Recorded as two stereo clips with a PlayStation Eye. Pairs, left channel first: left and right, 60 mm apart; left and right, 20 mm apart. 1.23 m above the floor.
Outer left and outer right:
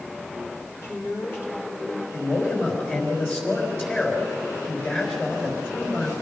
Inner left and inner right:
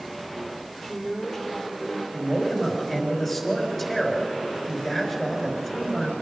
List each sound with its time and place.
0.8 s a woman speaking: 45° left (ahead or behind), 4 m; by 2.0 s 35° left (ahead or behind), 5 m
2.1 s a man speaking: 30° left (ahead or behind), 5 m